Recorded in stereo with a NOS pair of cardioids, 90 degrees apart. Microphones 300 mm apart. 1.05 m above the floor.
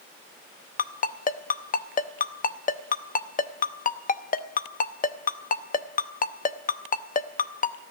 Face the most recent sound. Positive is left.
turn(degrees=30)